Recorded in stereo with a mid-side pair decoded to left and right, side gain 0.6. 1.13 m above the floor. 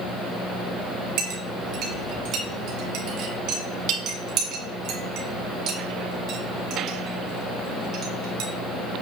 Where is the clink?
65° right, 1.8 m.